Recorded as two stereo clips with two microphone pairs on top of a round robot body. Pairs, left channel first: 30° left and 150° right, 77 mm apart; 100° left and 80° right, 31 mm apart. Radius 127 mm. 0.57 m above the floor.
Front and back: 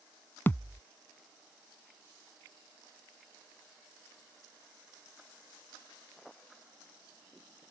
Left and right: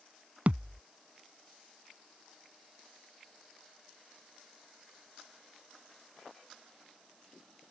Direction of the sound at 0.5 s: 35° right.